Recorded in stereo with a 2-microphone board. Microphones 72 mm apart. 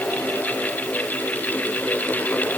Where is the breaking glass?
No breaking glass in this recording.